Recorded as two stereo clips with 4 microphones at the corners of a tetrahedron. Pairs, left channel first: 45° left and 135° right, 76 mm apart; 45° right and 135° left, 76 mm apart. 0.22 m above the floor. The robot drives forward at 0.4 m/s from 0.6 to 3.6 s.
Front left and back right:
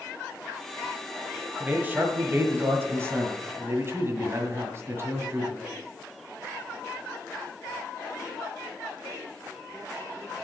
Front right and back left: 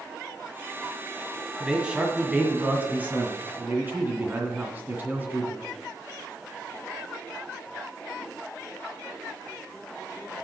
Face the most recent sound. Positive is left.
turn(degrees=-175)